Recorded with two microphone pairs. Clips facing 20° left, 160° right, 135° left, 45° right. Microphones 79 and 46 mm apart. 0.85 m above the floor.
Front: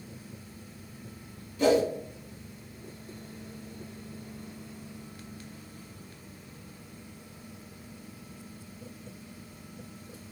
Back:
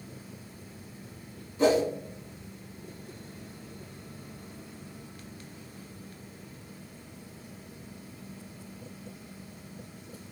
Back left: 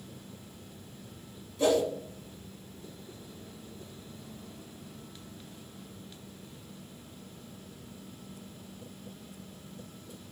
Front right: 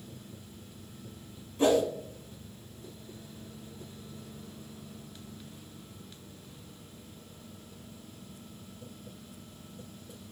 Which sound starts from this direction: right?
A whoosh, at 1.6 s.